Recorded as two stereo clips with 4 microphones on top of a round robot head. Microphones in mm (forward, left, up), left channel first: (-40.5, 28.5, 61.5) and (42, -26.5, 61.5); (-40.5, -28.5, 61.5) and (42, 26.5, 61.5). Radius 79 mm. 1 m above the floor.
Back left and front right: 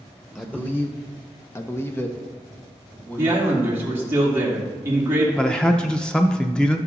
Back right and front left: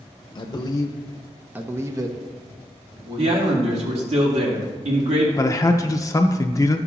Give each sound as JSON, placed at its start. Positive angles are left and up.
{"t": 0.3, "sound": "a man speaking", "azimuth_deg": -140, "distance_m": 0.9}
{"t": 3.2, "sound": "a man speaking", "azimuth_deg": 30, "distance_m": 2.5}
{"t": 5.4, "sound": "a man speaking", "azimuth_deg": -140, "distance_m": 0.6}